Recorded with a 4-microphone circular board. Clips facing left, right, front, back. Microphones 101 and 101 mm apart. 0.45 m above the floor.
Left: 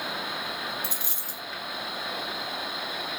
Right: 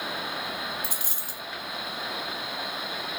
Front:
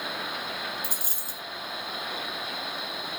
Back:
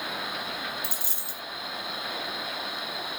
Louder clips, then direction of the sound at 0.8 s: Even, even; 45° right.